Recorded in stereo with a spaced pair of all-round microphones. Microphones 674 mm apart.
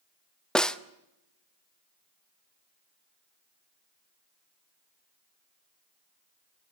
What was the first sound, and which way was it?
A snare drum, centre (ahead or behind).